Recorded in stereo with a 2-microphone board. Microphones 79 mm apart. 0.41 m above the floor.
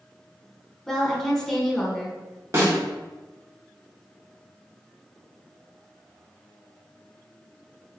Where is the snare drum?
40° right (ahead or behind), 1.1 m.